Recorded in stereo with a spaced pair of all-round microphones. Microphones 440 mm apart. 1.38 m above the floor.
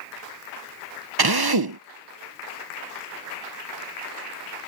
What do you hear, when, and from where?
1.2 s a drill: 60° right (ahead or behind)